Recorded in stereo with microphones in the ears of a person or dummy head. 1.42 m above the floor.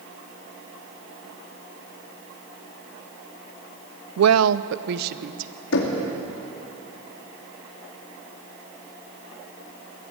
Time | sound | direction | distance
4.2 | a woman speaking | 75° right (ahead or behind) | 0.5 m
5.7 | knocking | 75° left (ahead or behind) | 2.5 m